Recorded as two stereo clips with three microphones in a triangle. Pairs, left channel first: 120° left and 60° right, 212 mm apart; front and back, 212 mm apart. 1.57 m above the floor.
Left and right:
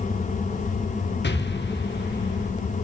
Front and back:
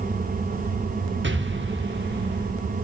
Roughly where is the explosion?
Behind left.